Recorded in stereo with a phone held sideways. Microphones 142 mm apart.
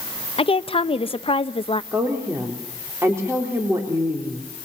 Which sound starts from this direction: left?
A woman speaking, at 0.4 s.